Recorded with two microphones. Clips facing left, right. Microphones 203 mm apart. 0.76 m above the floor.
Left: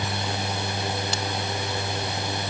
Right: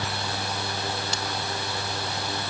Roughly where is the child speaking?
No child speaking in this recording.